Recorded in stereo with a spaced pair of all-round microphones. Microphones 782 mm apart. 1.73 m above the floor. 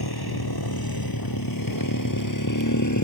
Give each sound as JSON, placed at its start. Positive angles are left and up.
{"t": 0.0, "sound": "a motorcycle", "side_deg": 30}